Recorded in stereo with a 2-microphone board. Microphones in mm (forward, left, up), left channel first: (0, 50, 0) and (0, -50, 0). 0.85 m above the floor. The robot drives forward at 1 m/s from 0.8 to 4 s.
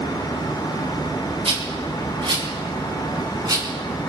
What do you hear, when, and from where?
1.4 s a rattle: 70° right (ahead or behind), 3 m; by 3.6 s 40° right (ahead or behind), 4.5 m